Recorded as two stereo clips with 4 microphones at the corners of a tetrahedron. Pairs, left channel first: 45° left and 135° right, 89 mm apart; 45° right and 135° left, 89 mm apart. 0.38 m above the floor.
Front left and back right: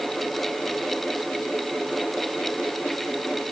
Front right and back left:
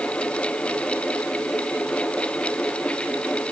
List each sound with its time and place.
Only background noise.